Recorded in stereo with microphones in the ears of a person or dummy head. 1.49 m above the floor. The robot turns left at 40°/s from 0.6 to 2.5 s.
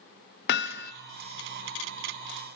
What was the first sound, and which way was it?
Hammering, 65° left (ahead or behind).